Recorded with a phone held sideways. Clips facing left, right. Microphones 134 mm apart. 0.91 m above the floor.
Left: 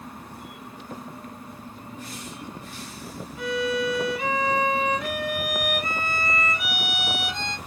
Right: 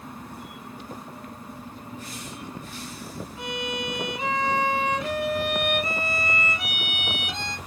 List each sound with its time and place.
3.4 s a violin: 30° right (ahead or behind), 1.1 m